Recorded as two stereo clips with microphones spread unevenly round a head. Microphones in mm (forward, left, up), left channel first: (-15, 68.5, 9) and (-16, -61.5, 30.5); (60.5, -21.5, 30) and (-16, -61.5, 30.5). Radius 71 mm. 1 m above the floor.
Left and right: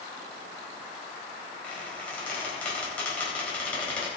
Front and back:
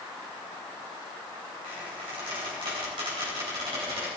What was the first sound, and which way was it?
A squeak, 170° left.